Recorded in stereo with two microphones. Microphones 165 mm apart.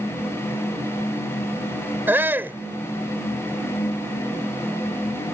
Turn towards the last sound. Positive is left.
turn(degrees=-10)  # may be behind; listen again after turning